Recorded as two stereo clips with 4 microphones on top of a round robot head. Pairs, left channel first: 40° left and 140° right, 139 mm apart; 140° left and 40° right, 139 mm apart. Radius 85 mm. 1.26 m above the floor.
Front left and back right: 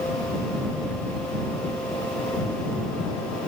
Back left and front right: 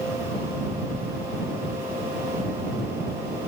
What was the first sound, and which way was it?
Only background noise.